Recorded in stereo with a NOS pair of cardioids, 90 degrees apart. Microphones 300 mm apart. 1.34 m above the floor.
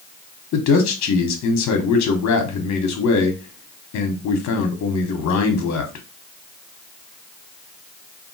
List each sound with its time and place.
0.5 s a man speaking: 65° left, 0.9 m